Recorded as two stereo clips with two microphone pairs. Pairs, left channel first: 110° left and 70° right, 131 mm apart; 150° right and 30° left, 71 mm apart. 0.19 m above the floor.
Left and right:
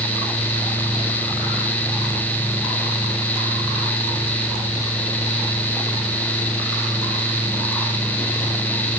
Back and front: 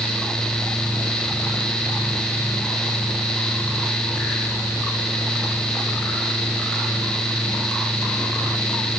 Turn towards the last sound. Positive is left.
No sound to turn to.